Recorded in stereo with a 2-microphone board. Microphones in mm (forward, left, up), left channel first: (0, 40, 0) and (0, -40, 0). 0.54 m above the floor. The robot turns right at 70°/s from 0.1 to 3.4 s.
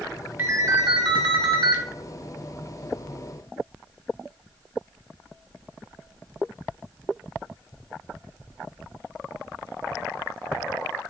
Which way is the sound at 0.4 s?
155° right.